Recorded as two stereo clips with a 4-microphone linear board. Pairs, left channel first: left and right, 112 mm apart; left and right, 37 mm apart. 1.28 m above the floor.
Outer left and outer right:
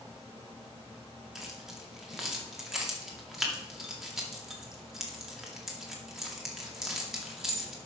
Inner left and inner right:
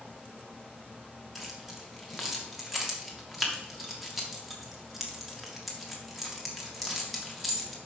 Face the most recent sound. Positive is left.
turn(degrees=-5)  # may be behind; listen again after turning